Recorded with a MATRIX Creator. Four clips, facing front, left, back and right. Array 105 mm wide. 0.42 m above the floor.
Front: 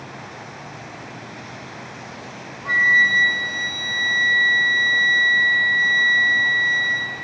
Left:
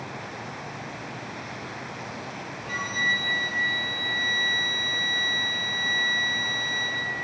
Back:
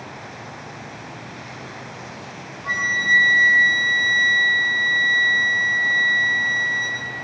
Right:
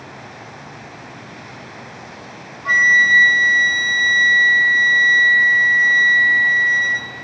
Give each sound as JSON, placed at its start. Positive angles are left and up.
{"t": 2.6, "sound": "a flute", "azimuth_deg": -95, "distance_m": 3.5}